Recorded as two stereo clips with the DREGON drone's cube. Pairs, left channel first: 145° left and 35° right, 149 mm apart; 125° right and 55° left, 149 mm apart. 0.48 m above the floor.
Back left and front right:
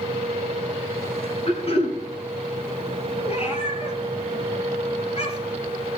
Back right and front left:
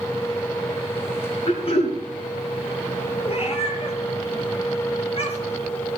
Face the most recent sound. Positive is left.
turn(degrees=-170)